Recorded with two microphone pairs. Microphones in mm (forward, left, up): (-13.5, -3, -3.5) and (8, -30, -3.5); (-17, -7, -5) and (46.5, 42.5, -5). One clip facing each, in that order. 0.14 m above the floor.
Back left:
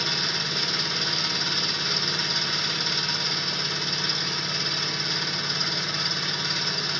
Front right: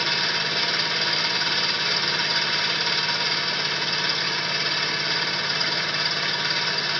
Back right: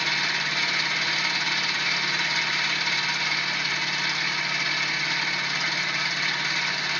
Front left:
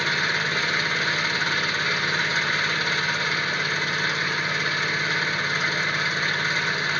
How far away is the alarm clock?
No alarm clock in this recording.